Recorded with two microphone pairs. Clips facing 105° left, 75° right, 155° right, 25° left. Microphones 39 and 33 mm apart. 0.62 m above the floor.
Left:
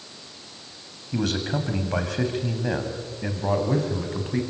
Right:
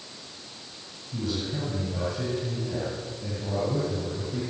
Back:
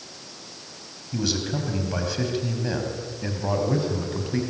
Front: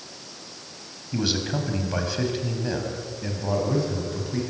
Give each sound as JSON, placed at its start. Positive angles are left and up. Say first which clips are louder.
{"t": 1.1, "sound": "a man speaking", "louder": "left 5 dB, front 1 dB", "azimuth_deg": 95, "distance_m": 5.0}